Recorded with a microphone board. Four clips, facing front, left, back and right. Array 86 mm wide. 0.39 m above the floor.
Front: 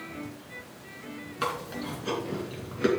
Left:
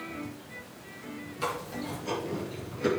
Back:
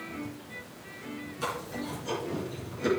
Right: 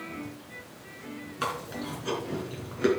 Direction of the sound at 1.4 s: 45° right.